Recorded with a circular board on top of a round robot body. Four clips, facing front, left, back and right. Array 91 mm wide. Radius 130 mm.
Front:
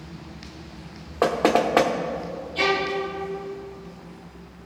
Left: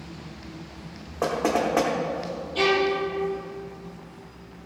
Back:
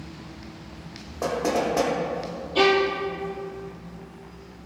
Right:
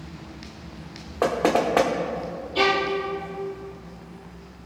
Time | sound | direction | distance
1.2 | knocking | 20° right | 1.2 m
2.5 | a violin | 165° right | 2.5 m